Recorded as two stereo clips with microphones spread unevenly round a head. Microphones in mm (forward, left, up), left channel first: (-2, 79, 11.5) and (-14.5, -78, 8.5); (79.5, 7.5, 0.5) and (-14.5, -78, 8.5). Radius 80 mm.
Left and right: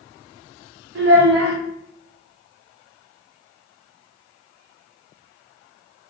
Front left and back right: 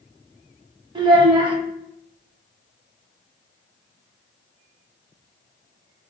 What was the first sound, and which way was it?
A child speaking, 90° right.